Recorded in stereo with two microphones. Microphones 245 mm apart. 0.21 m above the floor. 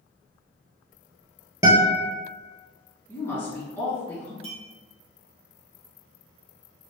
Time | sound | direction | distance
1.6 | a guitar | 10° right (ahead or behind) | 1.0 m
3.1 | a woman speaking | 10° left (ahead or behind) | 2.0 m
4.4 | a clink | 20° right (ahead or behind) | 1.2 m